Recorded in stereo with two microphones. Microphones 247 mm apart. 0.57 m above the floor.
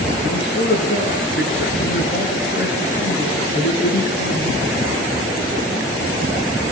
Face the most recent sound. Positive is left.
turn(degrees=45)  # may be behind; listen again after turning